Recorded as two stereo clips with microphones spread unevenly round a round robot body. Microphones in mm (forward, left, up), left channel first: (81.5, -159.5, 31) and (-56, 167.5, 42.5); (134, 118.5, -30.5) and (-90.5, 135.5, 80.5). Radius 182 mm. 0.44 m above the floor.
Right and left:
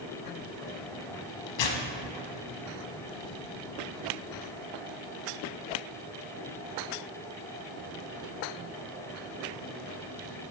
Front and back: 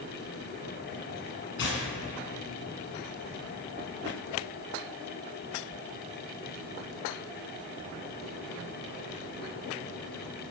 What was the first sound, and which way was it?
Tearing paper, 55° right.